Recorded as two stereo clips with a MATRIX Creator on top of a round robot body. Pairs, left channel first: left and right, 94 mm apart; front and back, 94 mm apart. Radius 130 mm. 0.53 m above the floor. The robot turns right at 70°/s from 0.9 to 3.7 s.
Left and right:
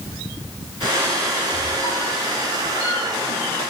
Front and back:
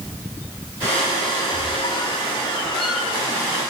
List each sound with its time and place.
1.5 s a squeak: 5° right, 5.5 m; by 3.5 s 135° left, 5.5 m